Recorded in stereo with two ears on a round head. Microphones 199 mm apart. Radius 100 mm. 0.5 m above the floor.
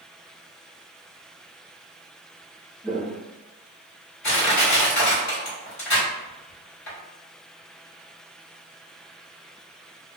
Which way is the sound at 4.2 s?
50° left (ahead or behind).